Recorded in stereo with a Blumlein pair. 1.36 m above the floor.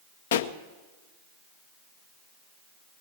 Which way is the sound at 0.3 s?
60° left.